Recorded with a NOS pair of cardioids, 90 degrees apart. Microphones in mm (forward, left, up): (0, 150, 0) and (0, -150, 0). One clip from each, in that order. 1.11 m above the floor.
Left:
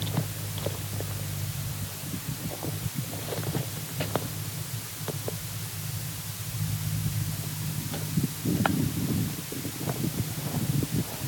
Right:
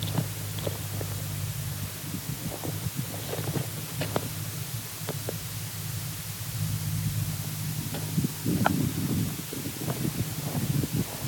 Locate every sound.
Only background noise.